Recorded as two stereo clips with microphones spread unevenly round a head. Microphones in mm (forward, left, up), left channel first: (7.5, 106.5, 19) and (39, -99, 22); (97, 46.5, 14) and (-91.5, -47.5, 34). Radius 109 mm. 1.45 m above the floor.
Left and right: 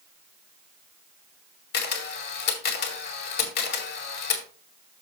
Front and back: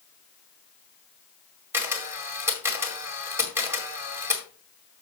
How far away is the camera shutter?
About 1.9 m.